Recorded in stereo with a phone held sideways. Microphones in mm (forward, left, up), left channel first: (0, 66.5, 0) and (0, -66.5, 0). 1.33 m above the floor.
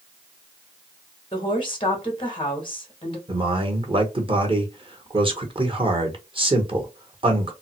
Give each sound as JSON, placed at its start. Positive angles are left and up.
{"t": 1.3, "sound": "a woman speaking", "side_deg": 40, "distance_m": 1.5}
{"t": 3.3, "sound": "a man speaking", "side_deg": -40, "distance_m": 1.1}